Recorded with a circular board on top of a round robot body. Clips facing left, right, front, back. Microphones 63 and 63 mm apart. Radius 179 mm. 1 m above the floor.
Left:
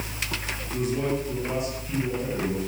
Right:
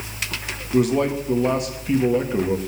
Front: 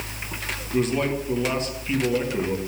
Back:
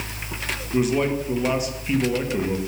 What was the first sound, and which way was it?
A man speaking, 100° right.